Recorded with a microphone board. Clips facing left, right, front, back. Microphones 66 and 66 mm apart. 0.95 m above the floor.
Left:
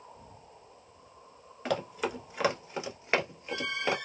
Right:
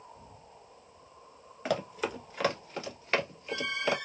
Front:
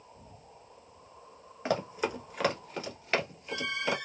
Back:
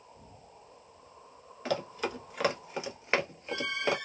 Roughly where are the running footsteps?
Ahead.